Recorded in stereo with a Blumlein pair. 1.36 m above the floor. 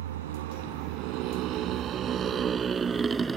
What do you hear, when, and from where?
0.0 s a motorcycle: 60° right; by 3.4 s 10° right